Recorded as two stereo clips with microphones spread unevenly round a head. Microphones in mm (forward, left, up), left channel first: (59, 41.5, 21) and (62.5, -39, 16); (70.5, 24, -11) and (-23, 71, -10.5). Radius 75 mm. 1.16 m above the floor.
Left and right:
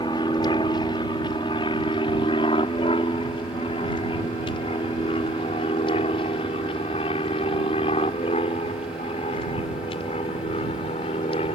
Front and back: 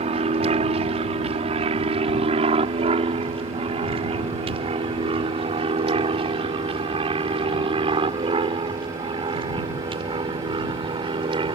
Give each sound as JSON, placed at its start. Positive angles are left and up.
{"t": 0.0, "sound": "an aircraft", "azimuth_deg": 145}